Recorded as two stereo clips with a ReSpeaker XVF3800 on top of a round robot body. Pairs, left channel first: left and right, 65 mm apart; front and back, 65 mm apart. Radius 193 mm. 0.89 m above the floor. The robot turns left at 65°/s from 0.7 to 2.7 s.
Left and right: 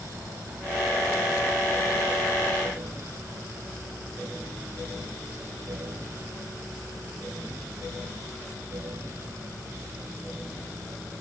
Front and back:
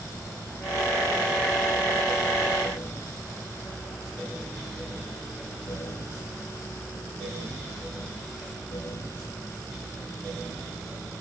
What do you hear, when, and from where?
Only background noise.